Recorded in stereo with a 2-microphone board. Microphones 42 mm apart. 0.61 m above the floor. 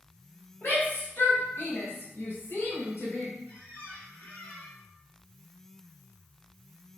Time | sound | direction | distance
0.6 | a shout | 50° left (ahead or behind) | 4 m
3.5 | a squeak | 30° left (ahead or behind) | 3 m